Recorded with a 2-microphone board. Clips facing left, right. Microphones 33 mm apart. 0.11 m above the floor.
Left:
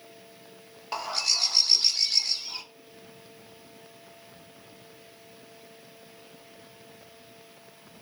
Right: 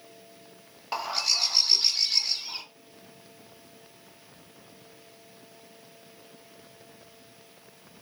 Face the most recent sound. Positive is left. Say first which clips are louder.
# right 1 dB
turn(degrees=-5)  # may be behind; listen again after turning